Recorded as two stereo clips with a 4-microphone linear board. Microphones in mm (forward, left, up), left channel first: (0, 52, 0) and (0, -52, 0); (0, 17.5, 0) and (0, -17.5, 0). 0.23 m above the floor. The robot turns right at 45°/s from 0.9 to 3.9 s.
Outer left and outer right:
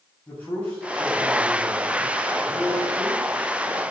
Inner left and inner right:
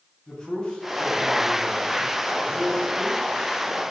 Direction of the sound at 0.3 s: 145° left.